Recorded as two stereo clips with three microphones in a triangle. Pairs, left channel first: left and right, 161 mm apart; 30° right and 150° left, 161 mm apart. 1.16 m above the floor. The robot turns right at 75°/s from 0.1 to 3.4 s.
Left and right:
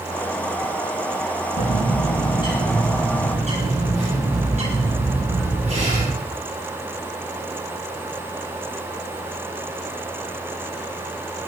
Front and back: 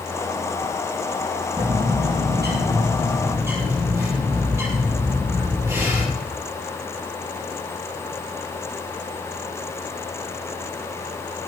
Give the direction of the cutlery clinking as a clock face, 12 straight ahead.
No cutlery clinking in this recording.